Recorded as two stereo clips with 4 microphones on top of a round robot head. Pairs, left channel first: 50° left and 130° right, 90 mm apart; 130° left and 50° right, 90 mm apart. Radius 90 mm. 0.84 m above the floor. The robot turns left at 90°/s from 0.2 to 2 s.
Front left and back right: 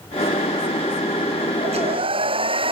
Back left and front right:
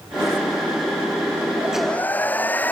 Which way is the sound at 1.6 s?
125° right.